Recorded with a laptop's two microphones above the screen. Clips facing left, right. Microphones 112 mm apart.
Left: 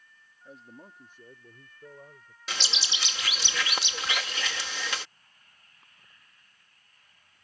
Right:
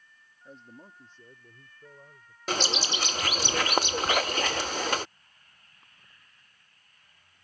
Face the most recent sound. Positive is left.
turn(degrees=-45)  # may be behind; listen again after turning